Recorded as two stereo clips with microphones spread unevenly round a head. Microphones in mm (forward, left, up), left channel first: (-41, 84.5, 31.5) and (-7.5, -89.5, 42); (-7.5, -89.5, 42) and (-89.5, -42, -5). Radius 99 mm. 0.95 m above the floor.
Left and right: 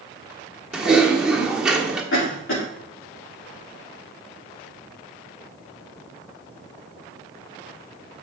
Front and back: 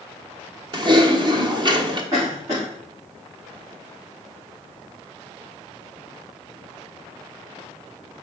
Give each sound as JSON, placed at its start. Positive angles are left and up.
{"t": 0.7, "sound": "typing on a keyboard", "azimuth_deg": -165, "distance_m": 1.1}
{"t": 2.1, "sound": "a cough", "azimuth_deg": 90, "distance_m": 2.0}